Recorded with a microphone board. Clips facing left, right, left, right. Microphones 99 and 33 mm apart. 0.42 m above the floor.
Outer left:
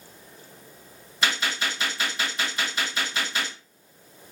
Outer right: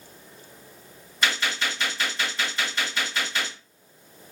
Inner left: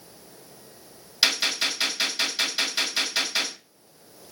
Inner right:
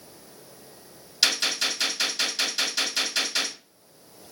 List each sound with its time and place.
1.2 s a gunshot: 10° left (ahead or behind), 1.8 m